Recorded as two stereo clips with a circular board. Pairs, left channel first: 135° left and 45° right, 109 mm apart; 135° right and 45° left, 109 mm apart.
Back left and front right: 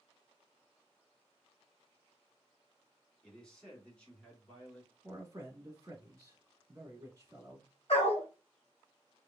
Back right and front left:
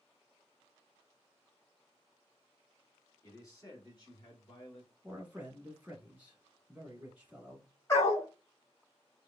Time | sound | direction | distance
3.2 | a man speaking | 150° right | 1.6 m
5.0 | a man speaking | 20° right | 1.3 m
7.9 | a dog barking | 165° left | 1.7 m